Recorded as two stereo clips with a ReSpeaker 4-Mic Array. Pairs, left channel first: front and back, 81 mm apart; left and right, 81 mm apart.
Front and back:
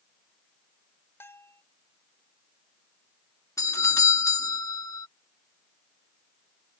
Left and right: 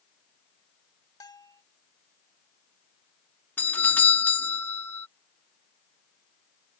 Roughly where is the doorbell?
Ahead left.